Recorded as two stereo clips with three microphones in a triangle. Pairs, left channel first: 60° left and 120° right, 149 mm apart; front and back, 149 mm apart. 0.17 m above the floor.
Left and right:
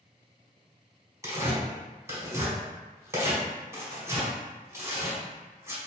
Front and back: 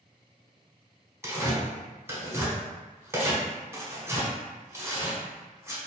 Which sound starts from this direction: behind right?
Tearing paper, at 1.2 s.